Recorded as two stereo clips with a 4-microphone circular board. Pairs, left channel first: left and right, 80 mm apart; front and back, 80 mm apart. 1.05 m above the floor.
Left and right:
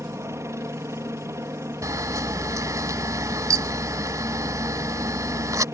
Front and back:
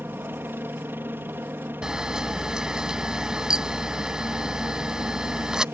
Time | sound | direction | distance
0.0 | a helicopter | 125° right | ?
1.8 | a camera shutter | 105° right | ?